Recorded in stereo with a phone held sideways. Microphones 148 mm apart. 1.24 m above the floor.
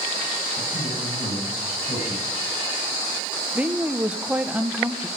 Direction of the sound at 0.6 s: 40° left (ahead or behind).